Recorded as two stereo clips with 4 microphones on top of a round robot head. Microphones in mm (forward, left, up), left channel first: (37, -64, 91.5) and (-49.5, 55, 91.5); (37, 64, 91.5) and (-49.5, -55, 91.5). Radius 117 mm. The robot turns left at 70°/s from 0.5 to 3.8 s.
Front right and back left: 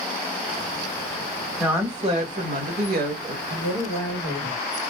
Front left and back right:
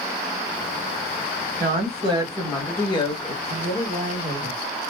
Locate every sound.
1.6 s a woman speaking: 150° right, 1.4 m; by 3.4 s 85° left, 1.4 m
3.5 s a woman speaking: 5° right, 1.5 m; by 4.6 s 30° right, 1.5 m